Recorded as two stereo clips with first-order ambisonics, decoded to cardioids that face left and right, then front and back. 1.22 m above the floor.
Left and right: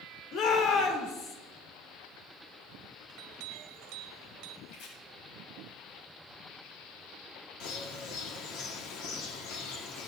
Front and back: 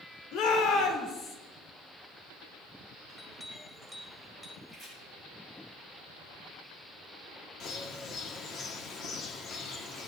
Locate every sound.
0.3 s a shout: 45° left, 3.5 m; by 1.4 s 55° left, 3.5 m
3.1 s a clink: 85° right, 1.9 m
4.7 s chopping: 90° left, 8.5 m
7.6 s a bird: 55° left, 1.8 m